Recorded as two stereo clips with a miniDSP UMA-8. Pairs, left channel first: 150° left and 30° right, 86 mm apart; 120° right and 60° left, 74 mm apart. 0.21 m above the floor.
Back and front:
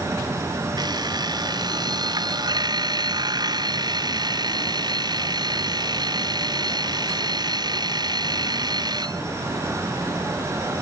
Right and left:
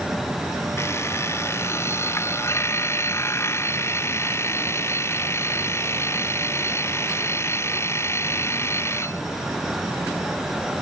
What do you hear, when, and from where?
0.8 s an alarm clock: 65° right